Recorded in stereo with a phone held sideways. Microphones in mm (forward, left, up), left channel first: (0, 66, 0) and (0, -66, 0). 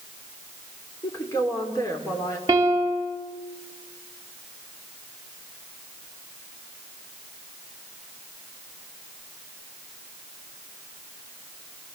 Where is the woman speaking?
25° left (ahead or behind), 4 m.